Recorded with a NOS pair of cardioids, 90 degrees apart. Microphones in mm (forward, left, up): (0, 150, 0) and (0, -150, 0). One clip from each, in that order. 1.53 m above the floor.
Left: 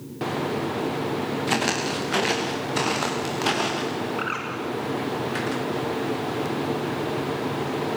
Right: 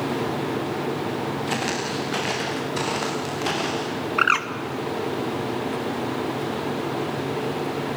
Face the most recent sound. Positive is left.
turn(degrees=-70)